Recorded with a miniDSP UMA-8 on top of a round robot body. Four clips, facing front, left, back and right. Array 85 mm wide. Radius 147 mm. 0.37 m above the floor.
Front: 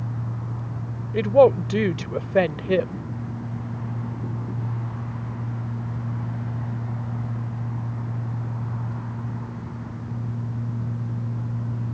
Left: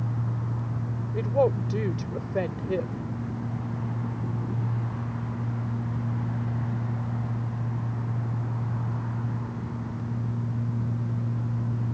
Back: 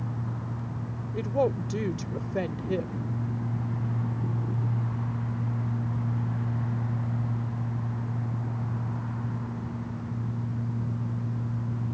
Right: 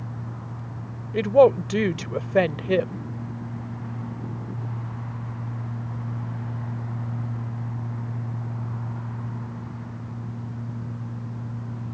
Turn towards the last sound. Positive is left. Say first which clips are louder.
# right 8 dB, front 11 dB
turn(degrees=-45)